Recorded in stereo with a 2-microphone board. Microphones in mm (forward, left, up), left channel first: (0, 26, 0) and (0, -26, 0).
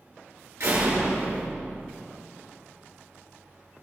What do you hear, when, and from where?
0.6 s a door slam: 65° right (ahead or behind), 7 m